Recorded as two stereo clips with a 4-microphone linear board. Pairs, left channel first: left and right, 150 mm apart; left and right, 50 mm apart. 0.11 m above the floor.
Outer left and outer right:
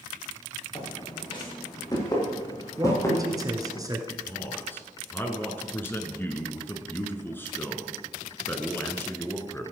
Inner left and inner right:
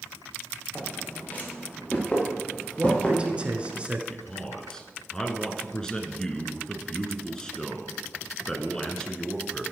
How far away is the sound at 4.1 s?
About 1.2 m.